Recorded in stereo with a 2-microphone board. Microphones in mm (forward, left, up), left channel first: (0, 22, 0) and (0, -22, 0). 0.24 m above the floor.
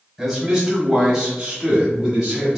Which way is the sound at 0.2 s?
5° right (ahead or behind).